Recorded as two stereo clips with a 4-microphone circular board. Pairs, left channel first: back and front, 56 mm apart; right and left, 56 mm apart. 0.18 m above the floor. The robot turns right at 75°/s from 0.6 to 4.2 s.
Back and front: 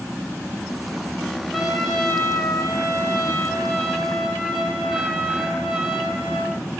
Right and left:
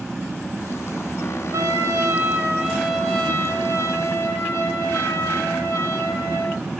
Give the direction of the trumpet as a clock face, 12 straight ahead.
10 o'clock.